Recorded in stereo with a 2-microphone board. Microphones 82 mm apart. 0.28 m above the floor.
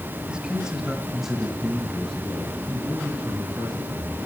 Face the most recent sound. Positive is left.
turn(degrees=5)  # may be behind; listen again after turning